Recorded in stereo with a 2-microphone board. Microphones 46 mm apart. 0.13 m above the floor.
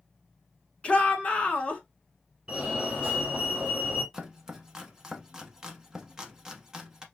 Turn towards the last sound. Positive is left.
turn(degrees=-15)  # may be behind; listen again after turning